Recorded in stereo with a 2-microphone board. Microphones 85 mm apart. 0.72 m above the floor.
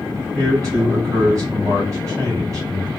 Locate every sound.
0.3 s a man speaking: 40° right (ahead or behind), 2.5 m